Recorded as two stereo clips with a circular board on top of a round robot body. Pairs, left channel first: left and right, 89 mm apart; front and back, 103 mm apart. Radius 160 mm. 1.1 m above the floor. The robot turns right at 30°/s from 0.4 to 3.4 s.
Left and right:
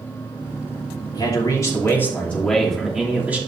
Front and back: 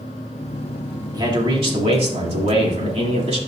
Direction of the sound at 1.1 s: 130° left.